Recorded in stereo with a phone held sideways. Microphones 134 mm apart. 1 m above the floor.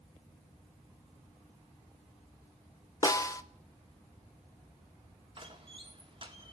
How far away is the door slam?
About 1.8 m.